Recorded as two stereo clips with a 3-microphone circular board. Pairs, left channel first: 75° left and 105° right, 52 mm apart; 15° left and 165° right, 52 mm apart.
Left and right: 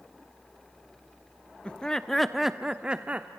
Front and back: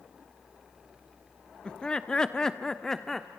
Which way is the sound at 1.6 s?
50° left.